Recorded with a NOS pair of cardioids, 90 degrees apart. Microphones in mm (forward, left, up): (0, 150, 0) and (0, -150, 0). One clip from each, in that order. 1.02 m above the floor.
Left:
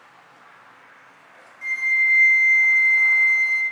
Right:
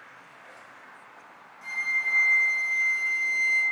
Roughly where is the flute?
Ahead.